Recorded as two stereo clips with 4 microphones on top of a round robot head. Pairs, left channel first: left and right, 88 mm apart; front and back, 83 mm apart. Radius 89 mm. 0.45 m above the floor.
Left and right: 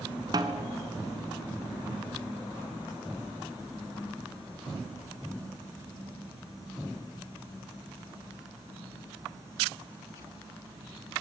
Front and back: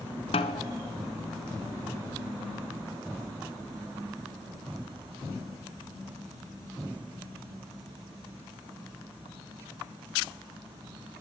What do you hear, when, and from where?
0.3 s a snare drum: 30° right, 0.9 m